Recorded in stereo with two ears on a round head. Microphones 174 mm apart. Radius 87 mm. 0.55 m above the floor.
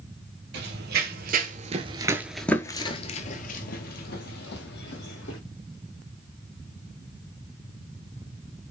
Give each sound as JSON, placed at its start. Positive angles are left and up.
{"t": 0.5, "sound": "running footsteps", "side_deg": -65, "distance_m": 1.0}